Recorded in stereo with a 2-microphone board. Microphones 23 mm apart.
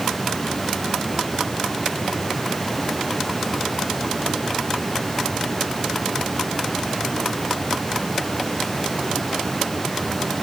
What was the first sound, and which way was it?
Only background noise.